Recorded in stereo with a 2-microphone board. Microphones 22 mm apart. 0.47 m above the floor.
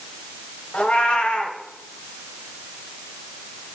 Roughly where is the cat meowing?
Left.